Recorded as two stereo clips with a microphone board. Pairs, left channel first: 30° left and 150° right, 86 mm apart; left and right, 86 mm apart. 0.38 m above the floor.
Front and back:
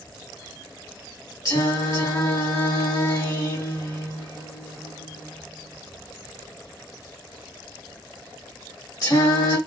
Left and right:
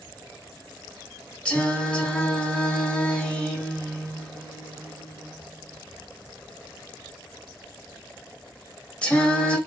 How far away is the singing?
About 1.7 m.